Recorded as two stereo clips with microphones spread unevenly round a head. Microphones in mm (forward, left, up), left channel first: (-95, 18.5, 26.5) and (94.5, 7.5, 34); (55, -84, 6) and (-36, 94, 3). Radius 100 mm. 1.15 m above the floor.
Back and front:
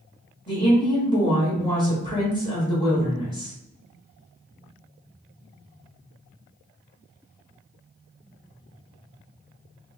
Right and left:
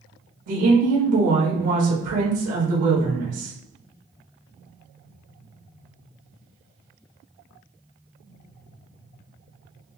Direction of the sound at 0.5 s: 110° left.